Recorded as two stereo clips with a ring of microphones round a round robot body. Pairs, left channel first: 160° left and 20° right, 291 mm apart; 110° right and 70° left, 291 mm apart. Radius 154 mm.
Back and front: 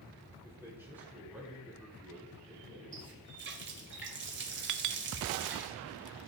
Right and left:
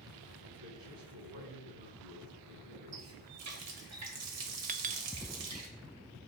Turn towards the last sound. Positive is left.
turn(degrees=5)